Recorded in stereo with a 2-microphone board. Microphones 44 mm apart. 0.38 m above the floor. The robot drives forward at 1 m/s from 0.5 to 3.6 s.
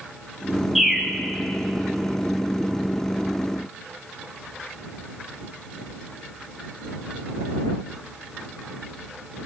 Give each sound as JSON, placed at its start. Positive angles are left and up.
{"t": 0.8, "sound": "a bird", "side_deg": -5, "distance_m": 1.2}